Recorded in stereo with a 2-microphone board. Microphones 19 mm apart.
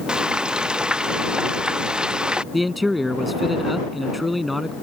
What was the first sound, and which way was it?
Frying, 50° right (ahead or behind).